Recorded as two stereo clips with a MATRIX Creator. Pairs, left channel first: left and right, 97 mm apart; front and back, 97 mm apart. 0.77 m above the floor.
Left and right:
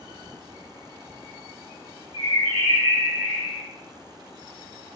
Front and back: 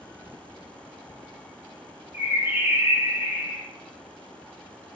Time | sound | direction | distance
2.1 | a bird | 115° left | 1.8 m